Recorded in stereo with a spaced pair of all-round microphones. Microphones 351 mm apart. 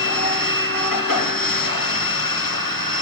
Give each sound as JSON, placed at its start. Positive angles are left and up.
{"t": 0.0, "sound": "a machine running", "side_deg": 75, "distance_m": 1.0}